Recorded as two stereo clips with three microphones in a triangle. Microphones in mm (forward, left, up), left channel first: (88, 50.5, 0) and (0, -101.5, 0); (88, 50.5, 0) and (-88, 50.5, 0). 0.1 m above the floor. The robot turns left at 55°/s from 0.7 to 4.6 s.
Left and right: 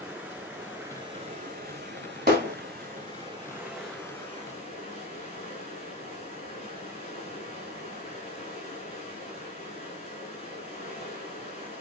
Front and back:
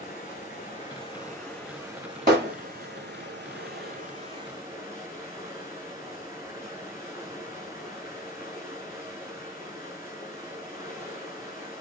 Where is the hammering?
150° right, 9 m; by 2.5 s 165° right, 9 m.